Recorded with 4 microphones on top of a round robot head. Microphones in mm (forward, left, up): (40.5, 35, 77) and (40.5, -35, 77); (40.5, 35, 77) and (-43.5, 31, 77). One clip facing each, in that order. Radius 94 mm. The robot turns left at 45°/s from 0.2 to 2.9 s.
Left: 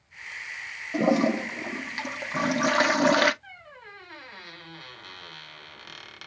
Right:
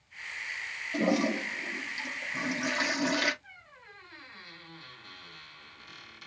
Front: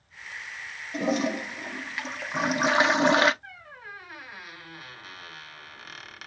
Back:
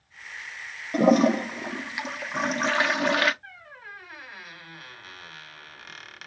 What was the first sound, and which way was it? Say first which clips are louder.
A toilet flushing: left 5 dB, back 8 dB; 155° left.